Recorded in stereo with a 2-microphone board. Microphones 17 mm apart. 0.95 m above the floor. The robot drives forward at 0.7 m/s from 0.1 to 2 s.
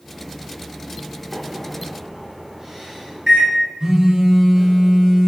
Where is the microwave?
45° right (ahead or behind), 1.6 m; by 3.5 s 35° right (ahead or behind), 2.0 m.